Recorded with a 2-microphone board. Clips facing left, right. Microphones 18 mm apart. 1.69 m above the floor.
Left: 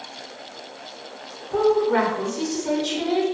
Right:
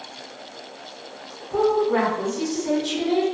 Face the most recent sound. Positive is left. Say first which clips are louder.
# left 1 dB
turn(degrees=30)  # may be behind; listen again after turning